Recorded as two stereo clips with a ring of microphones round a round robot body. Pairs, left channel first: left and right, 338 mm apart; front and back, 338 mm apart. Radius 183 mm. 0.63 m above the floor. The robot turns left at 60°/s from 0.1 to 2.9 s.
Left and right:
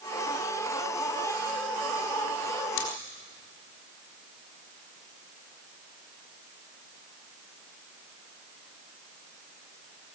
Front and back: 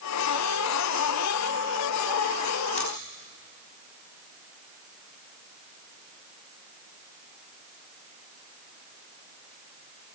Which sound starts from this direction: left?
Scissors, at 2.8 s.